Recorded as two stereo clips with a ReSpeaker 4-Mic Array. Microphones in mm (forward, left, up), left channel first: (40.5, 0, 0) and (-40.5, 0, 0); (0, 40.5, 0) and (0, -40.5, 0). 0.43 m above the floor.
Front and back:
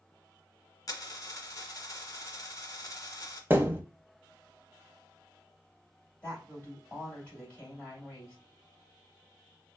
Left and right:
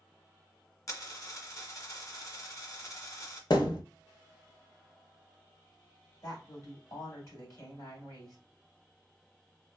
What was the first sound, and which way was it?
A dropped coin, 45° left.